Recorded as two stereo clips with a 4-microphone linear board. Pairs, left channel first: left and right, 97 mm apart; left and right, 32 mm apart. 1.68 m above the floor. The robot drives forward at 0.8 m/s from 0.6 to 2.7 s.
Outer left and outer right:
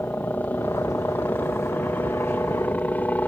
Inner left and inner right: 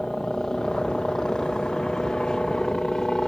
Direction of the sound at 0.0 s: 20° left (ahead or behind).